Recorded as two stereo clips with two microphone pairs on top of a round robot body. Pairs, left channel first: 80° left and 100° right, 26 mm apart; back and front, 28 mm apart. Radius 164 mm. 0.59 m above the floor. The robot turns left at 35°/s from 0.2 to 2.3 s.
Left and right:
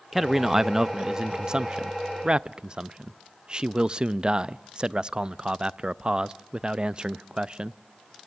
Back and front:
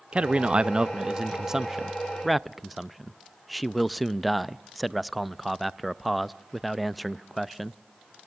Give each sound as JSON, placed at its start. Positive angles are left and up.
{"t": 0.1, "sound": "a man speaking", "azimuth_deg": -25, "distance_m": 0.6}